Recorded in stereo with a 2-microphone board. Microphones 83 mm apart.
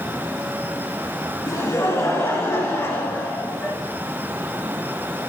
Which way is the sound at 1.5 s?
35° left (ahead or behind).